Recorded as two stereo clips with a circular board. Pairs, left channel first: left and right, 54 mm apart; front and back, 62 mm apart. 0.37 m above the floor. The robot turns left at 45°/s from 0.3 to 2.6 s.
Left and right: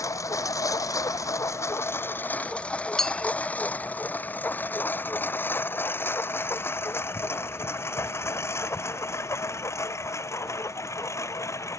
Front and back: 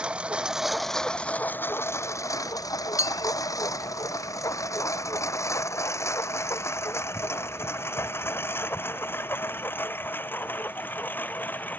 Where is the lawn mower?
105° left; by 11.8 s 60° left.